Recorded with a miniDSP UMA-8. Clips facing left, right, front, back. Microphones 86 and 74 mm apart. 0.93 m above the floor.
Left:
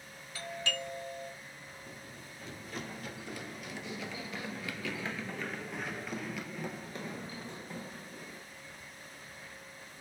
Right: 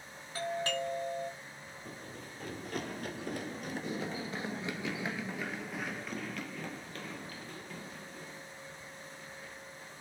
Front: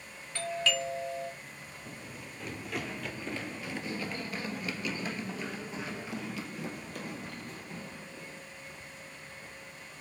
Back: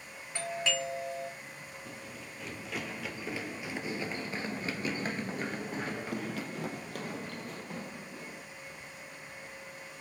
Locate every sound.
0.3 s a doorbell: 115° right, 1.3 m
1.9 s running footsteps: 80° right, 1.9 m; by 8.4 s 150° left, 2.5 m